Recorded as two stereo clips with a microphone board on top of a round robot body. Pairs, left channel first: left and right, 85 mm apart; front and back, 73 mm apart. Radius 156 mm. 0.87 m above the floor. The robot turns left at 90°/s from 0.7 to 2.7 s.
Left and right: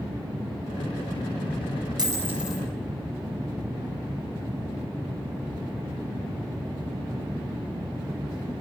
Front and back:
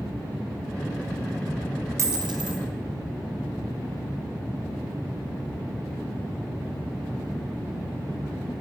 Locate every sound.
2.0 s a dropped coin: 130° right, 2 m; by 2.6 s 175° left, 2 m